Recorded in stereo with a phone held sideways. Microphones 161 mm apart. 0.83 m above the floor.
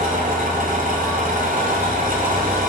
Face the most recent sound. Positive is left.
turn(degrees=-60)  # may be behind; listen again after turning